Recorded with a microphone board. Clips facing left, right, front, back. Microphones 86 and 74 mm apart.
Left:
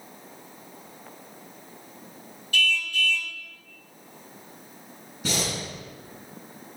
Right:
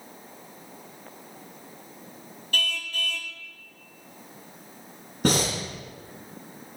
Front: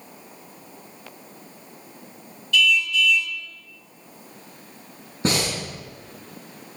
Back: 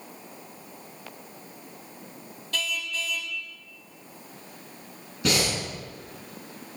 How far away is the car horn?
About 2 m.